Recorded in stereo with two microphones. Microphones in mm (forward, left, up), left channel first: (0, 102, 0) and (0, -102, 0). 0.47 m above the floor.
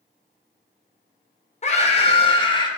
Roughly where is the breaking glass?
I don't hear breaking glass.